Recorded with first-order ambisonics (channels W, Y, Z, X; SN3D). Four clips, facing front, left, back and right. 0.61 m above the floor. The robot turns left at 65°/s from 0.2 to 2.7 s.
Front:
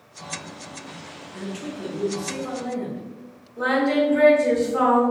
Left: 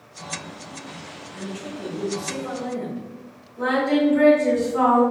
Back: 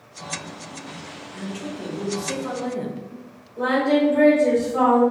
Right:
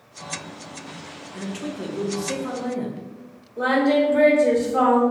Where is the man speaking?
65° right, 0.8 m; by 3.0 s 155° right, 0.8 m.